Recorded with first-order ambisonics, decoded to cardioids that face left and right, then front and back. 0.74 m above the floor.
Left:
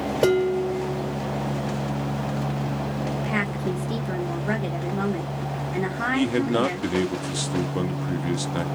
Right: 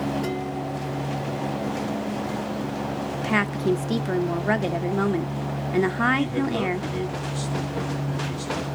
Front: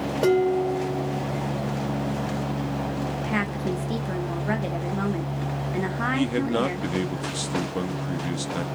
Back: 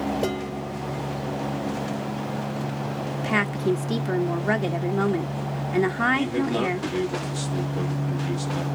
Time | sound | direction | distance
0.2 | dishes clattering | 75° left | 2.5 m
3.2 | a woman speaking | 130° right | 0.5 m
6.1 | a man speaking | 60° left | 1.0 m